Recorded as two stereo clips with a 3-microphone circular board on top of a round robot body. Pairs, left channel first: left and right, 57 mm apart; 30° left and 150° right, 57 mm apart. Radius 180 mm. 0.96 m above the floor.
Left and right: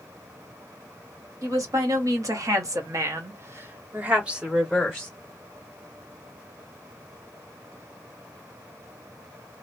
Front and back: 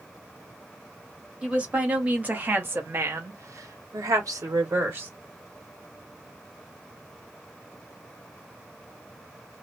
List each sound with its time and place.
1.4 s a woman speaking: 80° right, 1.6 m; by 5.1 s 175° left, 1.1 m